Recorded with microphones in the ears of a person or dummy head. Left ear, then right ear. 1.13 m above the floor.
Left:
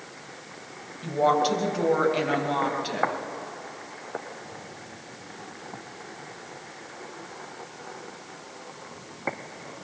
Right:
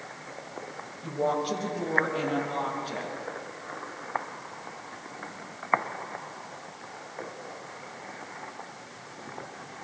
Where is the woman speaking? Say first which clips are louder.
Left 6 dB; 65° left (ahead or behind), 5.5 m; by 3.1 s 55° left (ahead or behind), 7.5 m.